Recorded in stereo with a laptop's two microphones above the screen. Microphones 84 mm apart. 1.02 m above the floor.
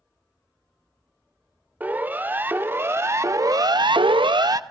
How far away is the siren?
About 3 m.